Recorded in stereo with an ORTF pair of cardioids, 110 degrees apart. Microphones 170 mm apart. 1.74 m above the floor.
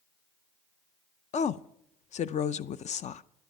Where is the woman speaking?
40° left, 0.5 m.